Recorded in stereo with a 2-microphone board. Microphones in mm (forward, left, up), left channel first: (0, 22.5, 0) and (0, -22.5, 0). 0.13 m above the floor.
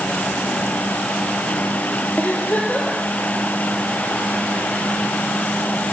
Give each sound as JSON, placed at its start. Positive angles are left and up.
{"t": 2.2, "sound": "a giggle", "side_deg": 35, "distance_m": 3.0}